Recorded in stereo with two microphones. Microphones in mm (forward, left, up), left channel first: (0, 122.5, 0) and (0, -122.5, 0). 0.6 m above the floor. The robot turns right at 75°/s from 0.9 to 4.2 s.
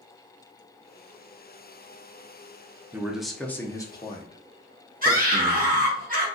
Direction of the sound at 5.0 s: 35° right (ahead or behind).